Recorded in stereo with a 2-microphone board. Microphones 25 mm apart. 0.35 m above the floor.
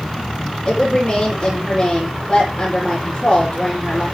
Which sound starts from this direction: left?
A woman speaking, at 0.7 s.